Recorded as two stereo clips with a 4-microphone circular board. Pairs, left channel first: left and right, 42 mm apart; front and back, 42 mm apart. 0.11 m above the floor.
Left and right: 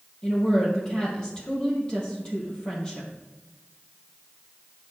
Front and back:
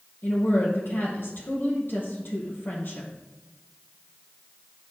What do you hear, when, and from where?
0.2 s a woman speaking: 25° left, 3 m